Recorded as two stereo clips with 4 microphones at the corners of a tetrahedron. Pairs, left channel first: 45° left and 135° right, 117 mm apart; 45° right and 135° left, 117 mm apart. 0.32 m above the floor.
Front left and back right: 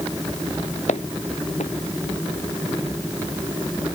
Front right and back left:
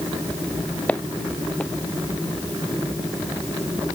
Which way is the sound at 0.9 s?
35° left.